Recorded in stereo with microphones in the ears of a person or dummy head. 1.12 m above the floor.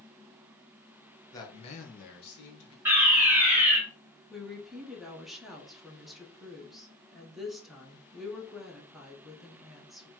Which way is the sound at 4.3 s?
Centre (ahead or behind).